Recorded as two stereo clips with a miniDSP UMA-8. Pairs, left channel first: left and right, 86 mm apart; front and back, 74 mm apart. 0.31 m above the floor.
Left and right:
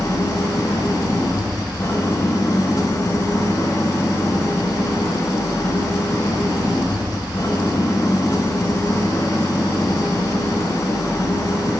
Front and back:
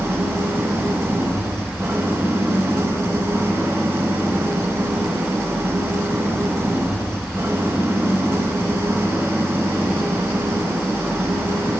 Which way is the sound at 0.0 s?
130° left.